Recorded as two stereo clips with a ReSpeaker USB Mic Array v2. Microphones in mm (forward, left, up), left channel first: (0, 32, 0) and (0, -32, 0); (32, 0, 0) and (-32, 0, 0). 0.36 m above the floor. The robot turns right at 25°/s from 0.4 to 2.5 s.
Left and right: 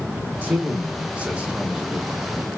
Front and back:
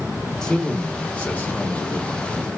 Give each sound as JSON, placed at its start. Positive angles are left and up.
{"t": 0.4, "sound": "a man speaking", "azimuth_deg": -70, "distance_m": 0.9}